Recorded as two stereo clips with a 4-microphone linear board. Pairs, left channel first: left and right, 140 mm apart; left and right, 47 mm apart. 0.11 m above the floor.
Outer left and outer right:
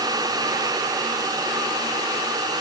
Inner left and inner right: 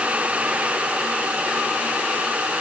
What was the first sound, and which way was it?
Only background noise.